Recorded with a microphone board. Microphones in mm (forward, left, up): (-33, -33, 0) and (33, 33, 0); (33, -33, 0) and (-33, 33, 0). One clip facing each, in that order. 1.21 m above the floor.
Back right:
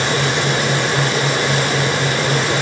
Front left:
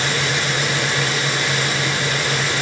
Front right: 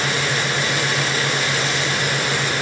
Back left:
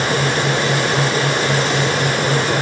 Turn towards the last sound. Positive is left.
No sound to turn to.